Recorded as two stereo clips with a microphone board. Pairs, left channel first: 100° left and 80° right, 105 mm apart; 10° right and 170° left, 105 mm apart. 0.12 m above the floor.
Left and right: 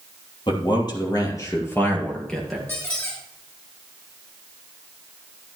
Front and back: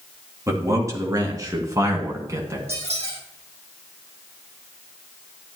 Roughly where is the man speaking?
Behind left.